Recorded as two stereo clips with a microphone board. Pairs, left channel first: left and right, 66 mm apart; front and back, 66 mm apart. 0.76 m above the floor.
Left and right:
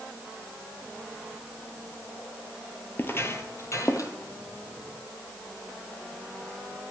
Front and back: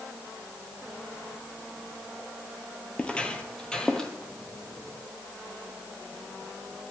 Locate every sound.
3.0 s footsteps: 60° left, 0.9 m; by 4.1 s 75° left, 1.3 m